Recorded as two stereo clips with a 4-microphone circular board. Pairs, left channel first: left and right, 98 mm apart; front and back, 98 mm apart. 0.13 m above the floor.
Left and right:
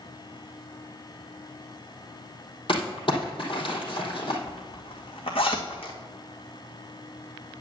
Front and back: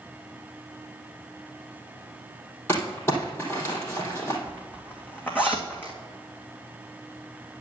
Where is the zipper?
70° left, 2.5 m.